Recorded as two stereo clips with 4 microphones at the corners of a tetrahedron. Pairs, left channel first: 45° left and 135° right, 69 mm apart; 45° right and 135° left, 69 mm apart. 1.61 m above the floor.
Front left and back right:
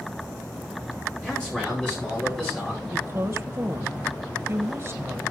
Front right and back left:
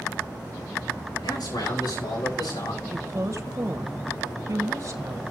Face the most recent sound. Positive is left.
turn(degrees=180)